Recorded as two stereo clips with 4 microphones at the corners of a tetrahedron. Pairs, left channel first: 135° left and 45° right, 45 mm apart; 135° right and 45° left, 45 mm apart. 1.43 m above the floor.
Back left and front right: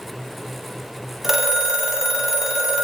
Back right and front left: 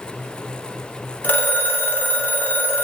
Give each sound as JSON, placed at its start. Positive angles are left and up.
{"t": 1.2, "sound": "a phone ringing", "azimuth_deg": -120, "distance_m": 0.8}